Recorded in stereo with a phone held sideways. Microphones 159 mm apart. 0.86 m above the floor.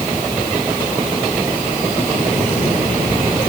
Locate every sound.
Only background noise.